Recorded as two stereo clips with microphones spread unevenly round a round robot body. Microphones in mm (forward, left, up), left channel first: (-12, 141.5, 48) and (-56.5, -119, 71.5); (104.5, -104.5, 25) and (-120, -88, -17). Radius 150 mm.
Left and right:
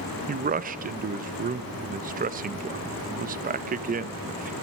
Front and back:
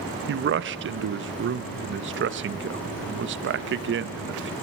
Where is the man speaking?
160° right, 0.5 m.